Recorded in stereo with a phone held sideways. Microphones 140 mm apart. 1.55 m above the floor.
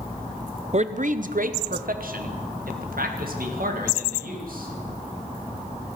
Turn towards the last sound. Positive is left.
turn(degrees=-85)